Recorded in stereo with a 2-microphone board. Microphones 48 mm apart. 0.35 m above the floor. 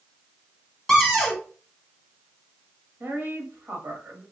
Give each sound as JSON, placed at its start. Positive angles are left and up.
{"t": 0.9, "sound": "a cupboard door", "side_deg": 0, "distance_m": 1.0}
{"t": 3.0, "sound": "a woman speaking", "side_deg": -50, "distance_m": 1.2}